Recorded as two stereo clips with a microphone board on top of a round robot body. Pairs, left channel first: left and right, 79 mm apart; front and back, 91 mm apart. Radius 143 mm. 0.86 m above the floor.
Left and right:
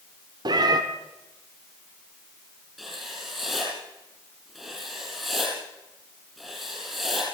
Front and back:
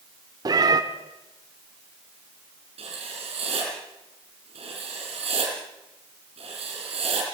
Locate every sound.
0.5 s a cat meowing: 130° right, 1.0 m
2.8 s writing: 175° right, 6 m